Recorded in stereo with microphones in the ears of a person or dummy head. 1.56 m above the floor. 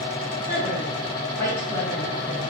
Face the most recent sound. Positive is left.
turn(degrees=10)  # may be behind; listen again after turning